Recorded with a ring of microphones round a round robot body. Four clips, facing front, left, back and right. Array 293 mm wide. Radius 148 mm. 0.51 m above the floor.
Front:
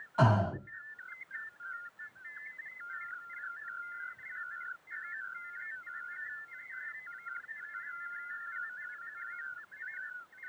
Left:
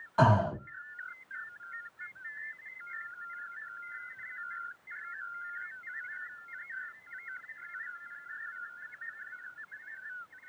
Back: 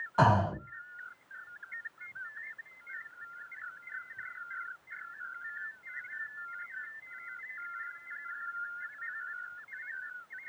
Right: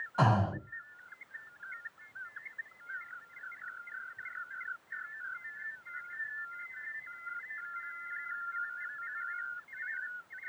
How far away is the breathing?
About 1.4 m.